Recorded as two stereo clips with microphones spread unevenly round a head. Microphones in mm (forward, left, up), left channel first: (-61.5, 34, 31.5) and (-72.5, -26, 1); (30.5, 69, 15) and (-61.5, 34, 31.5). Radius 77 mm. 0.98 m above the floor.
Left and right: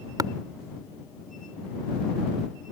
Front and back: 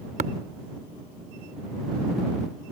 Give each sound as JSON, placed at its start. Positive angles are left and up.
{"t": 0.2, "sound": "tapping", "azimuth_deg": -135}